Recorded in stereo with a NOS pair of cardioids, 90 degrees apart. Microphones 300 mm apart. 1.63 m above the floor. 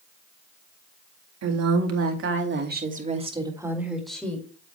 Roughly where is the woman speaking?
Ahead right.